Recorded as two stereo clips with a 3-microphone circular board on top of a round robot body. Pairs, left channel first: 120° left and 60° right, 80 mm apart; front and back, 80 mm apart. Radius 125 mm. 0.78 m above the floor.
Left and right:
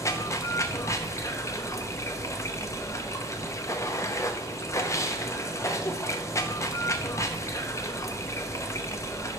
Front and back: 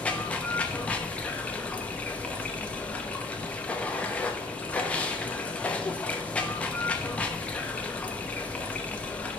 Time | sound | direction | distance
0.0 | running water | 70° left | 0.9 m